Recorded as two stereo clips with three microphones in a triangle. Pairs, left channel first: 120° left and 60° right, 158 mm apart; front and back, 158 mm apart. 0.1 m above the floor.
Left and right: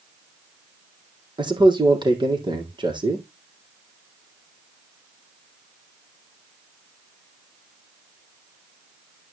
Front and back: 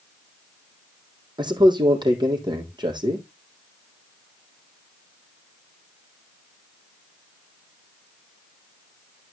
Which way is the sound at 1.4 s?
120° right.